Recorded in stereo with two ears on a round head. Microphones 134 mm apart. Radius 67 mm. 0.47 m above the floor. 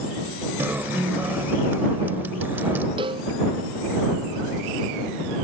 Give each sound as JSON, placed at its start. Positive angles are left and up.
{"t": 0.6, "sound": "a guitar", "side_deg": -15}
{"t": 3.0, "sound": "a cowbell", "side_deg": -35}